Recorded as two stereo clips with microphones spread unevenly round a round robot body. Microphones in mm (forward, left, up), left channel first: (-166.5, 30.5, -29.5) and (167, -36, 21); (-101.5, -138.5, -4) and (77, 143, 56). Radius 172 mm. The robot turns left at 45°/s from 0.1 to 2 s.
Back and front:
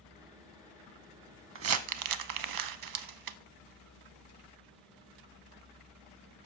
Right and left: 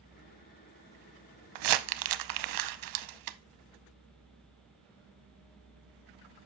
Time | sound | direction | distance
1.6 | crumpling | 45° left | 0.6 m